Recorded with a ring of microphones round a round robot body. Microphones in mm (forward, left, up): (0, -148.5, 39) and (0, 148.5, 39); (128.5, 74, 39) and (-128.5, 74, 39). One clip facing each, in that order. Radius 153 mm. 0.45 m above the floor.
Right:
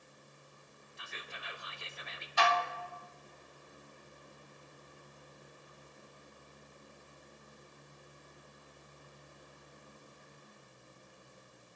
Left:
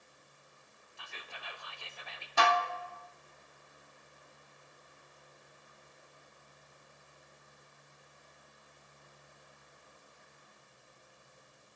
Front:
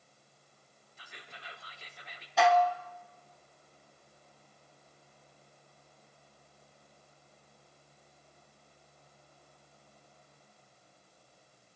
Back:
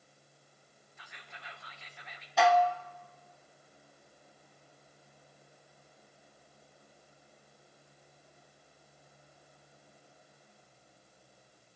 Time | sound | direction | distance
1.0 | whispering | 35° right | 1.0 m
2.4 | dishes clattering | 90° left | 0.9 m